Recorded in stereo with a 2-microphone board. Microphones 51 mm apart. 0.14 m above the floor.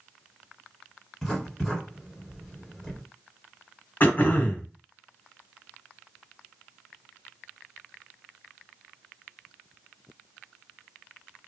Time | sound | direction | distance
1.2 | writing | 5° left (ahead or behind) | 1.7 m
4.0 | throat clearing | 40° left (ahead or behind) | 1.0 m